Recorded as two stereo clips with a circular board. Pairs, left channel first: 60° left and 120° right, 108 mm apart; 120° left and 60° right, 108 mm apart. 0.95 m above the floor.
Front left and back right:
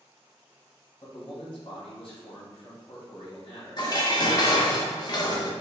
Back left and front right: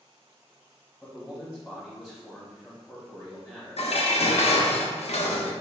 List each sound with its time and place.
1.0 s a man speaking: 25° left, 1.2 m
3.8 s dishes clattering: 110° left, 0.6 m